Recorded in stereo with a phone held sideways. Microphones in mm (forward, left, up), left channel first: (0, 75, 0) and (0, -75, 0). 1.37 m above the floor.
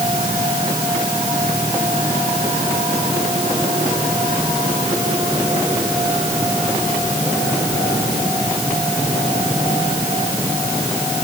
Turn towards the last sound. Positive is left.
No sound to turn to.